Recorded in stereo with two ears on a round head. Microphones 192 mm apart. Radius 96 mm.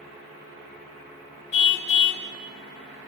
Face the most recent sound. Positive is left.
turn(degrees=55)  # may be behind; listen again after turning